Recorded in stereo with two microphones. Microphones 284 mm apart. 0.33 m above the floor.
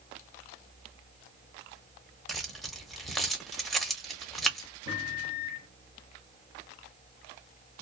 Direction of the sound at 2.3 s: Centre (ahead or behind).